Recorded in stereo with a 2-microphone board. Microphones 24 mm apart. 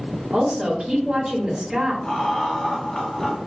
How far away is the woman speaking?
About 1.3 m.